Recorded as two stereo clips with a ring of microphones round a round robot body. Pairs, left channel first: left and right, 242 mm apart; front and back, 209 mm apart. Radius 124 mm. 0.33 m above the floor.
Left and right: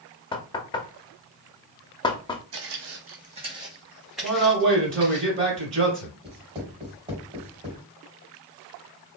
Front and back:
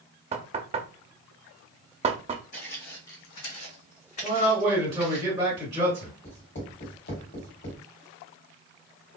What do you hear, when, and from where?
0.3 s knocking: 145° left, 0.6 m
2.5 s footsteps: 60° right, 0.8 m; by 5.2 s 10° left, 1.8 m
4.2 s a man speaking: 120° right, 1.8 m
6.2 s writing: 25° right, 2 m